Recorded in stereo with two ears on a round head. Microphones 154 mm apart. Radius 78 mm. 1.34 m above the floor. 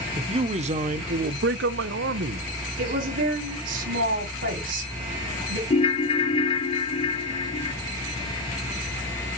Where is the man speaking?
30° right (ahead or behind), 1.0 m; by 2.5 s 60° right (ahead or behind), 0.8 m.